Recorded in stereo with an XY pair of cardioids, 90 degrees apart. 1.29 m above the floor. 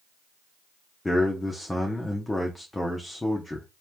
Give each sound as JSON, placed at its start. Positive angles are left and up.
{"t": 1.1, "sound": "a man speaking", "azimuth_deg": 15, "distance_m": 0.6}